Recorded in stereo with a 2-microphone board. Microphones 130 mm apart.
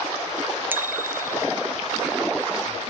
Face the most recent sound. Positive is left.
turn(degrees=-25)  # may be behind; listen again after turning